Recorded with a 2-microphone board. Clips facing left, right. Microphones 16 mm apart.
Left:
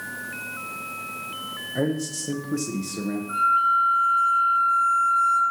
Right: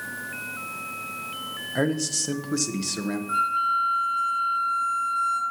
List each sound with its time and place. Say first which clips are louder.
1.8 s a man speaking: right 1 dB; 60° right (ahead or behind), 0.8 m
3.3 s a flute: left 4 dB; 25° right (ahead or behind), 3 m